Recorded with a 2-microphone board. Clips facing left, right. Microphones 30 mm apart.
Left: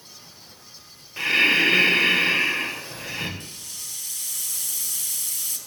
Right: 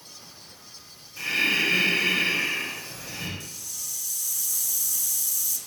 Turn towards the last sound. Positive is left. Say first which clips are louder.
# even
turn(degrees=55)  # may be behind; listen again after turning